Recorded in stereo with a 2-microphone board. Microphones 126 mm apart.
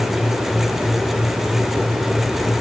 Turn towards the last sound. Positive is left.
No sound to turn to.